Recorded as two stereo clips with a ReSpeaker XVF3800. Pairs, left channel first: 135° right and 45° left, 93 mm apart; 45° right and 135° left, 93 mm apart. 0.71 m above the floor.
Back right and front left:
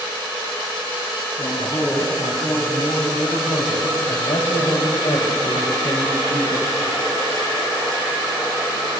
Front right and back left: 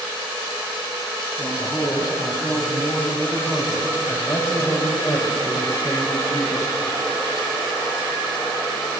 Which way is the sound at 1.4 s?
130° right.